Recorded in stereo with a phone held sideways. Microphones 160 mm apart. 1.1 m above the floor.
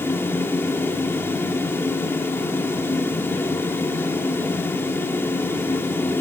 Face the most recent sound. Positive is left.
turn(degrees=15)  # may be behind; listen again after turning